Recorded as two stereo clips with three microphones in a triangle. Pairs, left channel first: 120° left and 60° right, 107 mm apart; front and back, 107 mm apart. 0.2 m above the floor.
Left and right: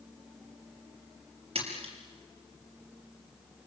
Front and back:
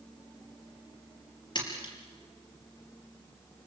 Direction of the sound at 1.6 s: 40° right.